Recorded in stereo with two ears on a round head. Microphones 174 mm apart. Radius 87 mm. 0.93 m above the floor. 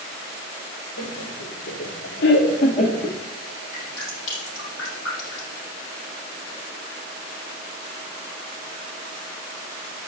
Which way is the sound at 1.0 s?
80° left.